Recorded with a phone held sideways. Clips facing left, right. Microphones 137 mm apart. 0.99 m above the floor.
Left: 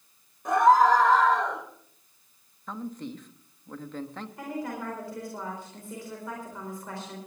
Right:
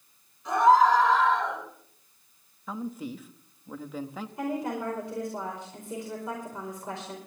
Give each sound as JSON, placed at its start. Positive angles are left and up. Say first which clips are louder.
{"t": 0.5, "sound": "a scream", "louder": "left 1 dB", "side_deg": 50, "distance_m": 6.0}
{"t": 2.7, "sound": "a man speaking", "louder": "right 1 dB", "side_deg": -5, "distance_m": 1.1}
{"t": 4.4, "sound": "a woman speaking", "louder": "right 4 dB", "side_deg": -20, "distance_m": 4.5}